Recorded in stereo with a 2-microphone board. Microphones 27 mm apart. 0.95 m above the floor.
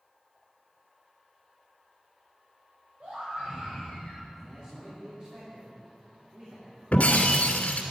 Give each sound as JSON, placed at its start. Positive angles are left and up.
{"t": 3.0, "sound": "a scream", "side_deg": -50, "distance_m": 4.0}
{"t": 4.3, "sound": "a man speaking", "side_deg": -40, "distance_m": 3.0}
{"t": 6.9, "sound": "breaking glass", "side_deg": 60, "distance_m": 2.0}